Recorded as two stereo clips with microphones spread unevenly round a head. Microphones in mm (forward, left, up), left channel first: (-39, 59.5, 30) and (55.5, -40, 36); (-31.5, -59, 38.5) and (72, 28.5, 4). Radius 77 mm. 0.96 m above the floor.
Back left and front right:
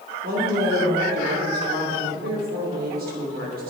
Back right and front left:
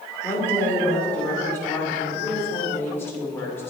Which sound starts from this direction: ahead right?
A woman speaking, at 0.2 s.